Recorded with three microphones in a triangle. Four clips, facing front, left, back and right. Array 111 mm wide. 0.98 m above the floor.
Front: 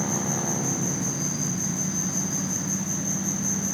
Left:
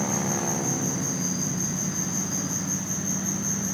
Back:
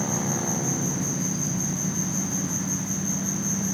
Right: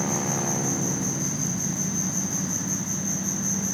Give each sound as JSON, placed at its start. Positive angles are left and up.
{"t": 0.0, "sound": "an insect", "azimuth_deg": 80, "distance_m": 3.5}